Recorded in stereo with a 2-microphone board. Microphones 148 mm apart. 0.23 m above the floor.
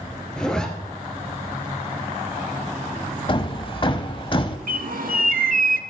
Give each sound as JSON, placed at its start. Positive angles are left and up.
{"t": 0.4, "sound": "a zipper", "side_deg": 5, "distance_m": 1.7}
{"t": 3.3, "sound": "hammering", "side_deg": 35, "distance_m": 0.7}
{"t": 4.7, "sound": "a bird", "side_deg": -75, "distance_m": 0.6}